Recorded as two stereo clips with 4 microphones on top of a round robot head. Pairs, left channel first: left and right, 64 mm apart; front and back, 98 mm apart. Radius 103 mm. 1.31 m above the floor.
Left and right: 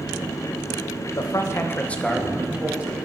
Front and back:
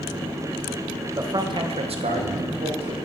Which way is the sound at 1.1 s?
120° left.